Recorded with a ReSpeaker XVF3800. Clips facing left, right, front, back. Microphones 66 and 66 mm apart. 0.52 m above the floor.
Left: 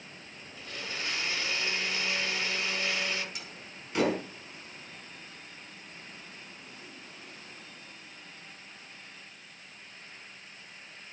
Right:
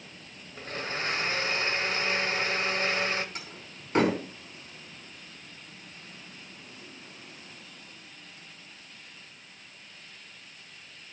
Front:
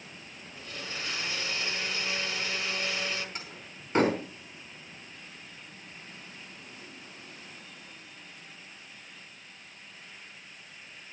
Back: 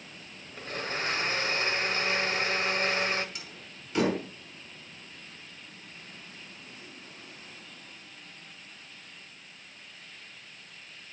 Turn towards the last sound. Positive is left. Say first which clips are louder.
# right 2 dB, front 2 dB
turn(degrees=-40)